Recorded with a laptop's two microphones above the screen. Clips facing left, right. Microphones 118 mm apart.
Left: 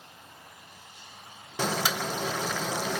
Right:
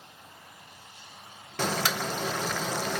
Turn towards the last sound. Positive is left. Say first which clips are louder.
# even
turn(degrees=10)  # may be behind; listen again after turning